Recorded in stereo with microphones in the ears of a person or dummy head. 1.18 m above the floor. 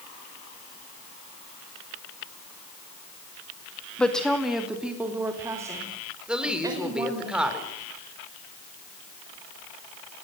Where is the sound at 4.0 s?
5° left (ahead or behind), 2 m; by 7.3 s 20° right (ahead or behind), 6 m.